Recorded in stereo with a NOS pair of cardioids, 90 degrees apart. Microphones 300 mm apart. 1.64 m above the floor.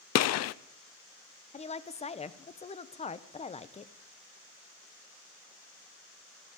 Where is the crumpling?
No crumpling in this recording.